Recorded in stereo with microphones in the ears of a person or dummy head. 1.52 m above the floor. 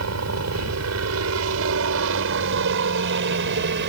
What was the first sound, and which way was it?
A helicopter, 75° right (ahead or behind).